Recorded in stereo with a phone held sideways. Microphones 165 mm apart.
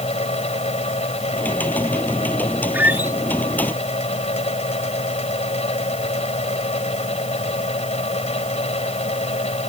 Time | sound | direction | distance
0.0 | a fan | 40° left (ahead or behind) | ?
1.3 | typing on a keyboard | 10° left (ahead or behind) | ?
2.7 | a squeak | 10° right (ahead or behind) | ?